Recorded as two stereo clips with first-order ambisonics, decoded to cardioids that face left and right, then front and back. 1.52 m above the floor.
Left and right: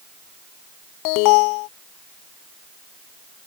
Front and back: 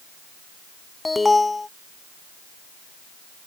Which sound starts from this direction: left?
An alarm, at 1.1 s.